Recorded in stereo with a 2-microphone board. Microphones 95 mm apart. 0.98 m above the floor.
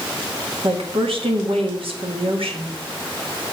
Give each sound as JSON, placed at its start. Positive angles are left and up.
{"t": 0.6, "sound": "a woman speaking", "side_deg": -70, "distance_m": 2.0}